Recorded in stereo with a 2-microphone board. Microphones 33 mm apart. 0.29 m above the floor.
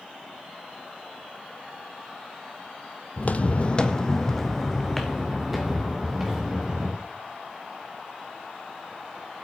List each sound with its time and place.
3.2 s footsteps: 50° left (ahead or behind), 0.8 m; by 7.0 s 10° right (ahead or behind), 3 m